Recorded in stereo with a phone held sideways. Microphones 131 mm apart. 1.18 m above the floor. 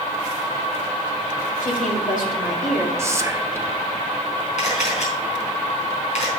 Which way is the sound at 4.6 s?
65° left (ahead or behind).